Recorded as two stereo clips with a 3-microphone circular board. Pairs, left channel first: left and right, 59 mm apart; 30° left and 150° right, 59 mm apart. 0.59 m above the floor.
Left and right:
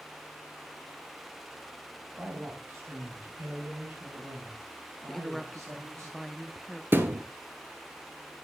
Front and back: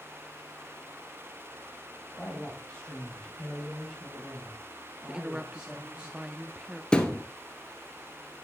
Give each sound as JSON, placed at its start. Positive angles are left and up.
{"t": 2.2, "sound": "a man speaking", "azimuth_deg": -35, "distance_m": 3.0}
{"t": 5.1, "sound": "a woman speaking", "azimuth_deg": 170, "distance_m": 0.6}
{"t": 6.9, "sound": "a thud", "azimuth_deg": -45, "distance_m": 1.2}